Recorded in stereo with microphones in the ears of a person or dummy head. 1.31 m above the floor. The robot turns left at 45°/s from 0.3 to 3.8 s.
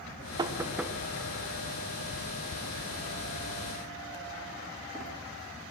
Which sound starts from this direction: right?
Knocking, at 0.4 s.